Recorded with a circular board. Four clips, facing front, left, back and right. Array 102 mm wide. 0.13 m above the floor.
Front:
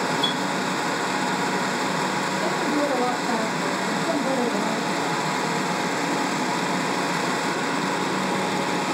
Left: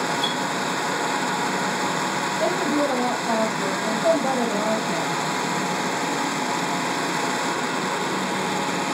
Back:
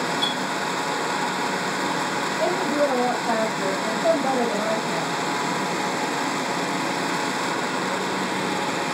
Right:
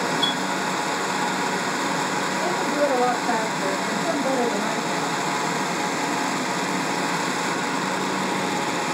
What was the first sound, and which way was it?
A clink, 175° left.